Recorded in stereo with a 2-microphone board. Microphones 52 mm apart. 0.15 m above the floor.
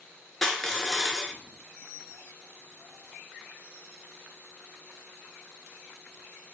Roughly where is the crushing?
Centre.